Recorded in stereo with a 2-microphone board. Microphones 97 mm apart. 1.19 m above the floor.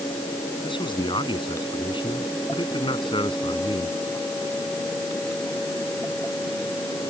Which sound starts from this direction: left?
A man speaking, at 0.6 s.